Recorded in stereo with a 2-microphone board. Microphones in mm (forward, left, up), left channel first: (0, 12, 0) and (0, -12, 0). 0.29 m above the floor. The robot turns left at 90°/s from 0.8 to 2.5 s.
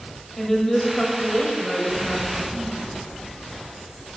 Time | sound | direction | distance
0.4 | a woman speaking | 15° left (ahead or behind) | 1.2 m